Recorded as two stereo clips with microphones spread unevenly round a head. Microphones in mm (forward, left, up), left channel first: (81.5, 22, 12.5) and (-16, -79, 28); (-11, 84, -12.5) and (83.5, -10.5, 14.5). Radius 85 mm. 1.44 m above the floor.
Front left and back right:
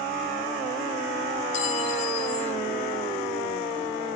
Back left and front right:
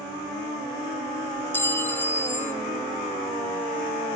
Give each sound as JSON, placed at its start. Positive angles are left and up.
{"t": 1.5, "sound": "a clink", "azimuth_deg": 55, "distance_m": 0.6}